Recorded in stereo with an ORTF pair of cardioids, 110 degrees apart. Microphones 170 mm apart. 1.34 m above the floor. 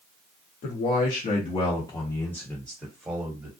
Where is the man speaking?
70° left, 1.1 m; by 3.5 s 20° right, 1.4 m.